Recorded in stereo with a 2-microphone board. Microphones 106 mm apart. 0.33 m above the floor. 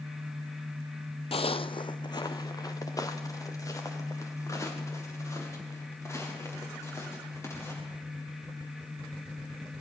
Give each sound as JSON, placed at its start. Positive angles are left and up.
{"t": 1.3, "sound": "footsteps", "side_deg": 65, "distance_m": 0.6}